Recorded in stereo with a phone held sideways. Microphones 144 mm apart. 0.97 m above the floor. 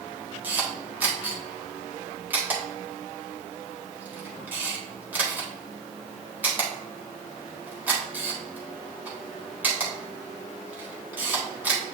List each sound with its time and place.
0.4 s a camera shutter: 10° right (ahead or behind), 1.8 m